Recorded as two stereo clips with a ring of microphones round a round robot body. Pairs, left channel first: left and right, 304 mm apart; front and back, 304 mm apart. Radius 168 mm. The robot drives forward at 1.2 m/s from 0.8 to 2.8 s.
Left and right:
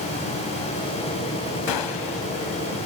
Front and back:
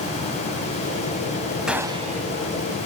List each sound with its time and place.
1.7 s a gunshot: 90° left, 1.4 m; by 2.3 s 120° left, 1.6 m